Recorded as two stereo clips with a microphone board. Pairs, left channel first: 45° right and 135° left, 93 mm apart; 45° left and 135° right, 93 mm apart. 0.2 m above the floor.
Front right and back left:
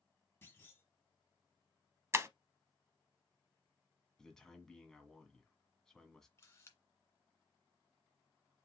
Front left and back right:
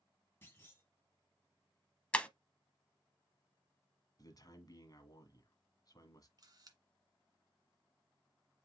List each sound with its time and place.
0.4 s a clunk: straight ahead, 1.9 m
2.1 s breaking glass: 110° left, 0.7 m
4.2 s a man speaking: 35° left, 1.5 m
6.4 s a camera shutter: 100° right, 1.9 m